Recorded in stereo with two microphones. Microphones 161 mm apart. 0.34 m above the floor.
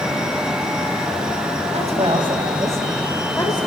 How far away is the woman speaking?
About 3 m.